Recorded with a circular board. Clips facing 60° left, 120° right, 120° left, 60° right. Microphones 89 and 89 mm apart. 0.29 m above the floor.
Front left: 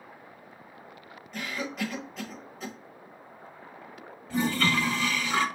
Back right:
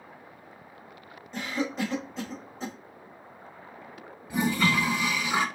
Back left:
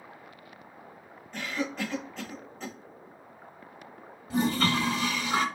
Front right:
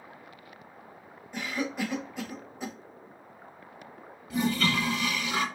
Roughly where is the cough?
Behind right.